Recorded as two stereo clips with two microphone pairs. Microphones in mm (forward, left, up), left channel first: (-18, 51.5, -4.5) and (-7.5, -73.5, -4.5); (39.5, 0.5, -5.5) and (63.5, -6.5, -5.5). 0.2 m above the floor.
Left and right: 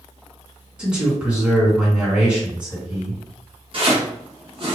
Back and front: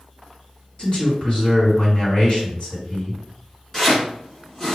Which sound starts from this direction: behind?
A man speaking, at 0.8 s.